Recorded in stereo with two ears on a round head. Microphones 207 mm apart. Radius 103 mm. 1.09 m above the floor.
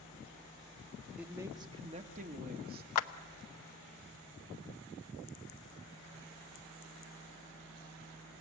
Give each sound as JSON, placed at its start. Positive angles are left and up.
{"t": 1.2, "sound": "a man speaking", "side_deg": -5, "distance_m": 1.1}
{"t": 3.0, "sound": "a clap", "side_deg": 85, "distance_m": 0.8}